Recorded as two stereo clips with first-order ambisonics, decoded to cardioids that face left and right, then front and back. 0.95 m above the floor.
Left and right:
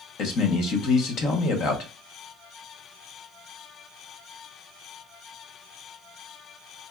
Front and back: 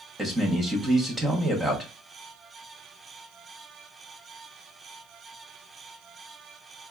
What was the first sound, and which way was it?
A man speaking, 105° left.